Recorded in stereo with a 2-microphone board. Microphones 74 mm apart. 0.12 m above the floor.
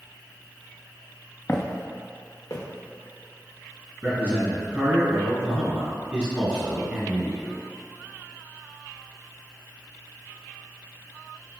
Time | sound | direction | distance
1.5 | footsteps | 30° left (ahead or behind) | 0.6 m
4.0 | a man speaking | 20° right (ahead or behind) | 1.9 m